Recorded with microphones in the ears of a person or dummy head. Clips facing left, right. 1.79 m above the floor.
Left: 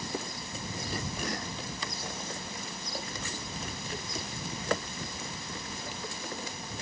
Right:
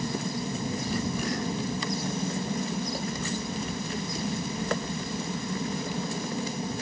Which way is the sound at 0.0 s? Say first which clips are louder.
Right 7 dB; 35° right (ahead or behind).